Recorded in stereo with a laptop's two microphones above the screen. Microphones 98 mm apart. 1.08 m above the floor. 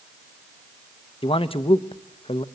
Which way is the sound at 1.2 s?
65° left (ahead or behind).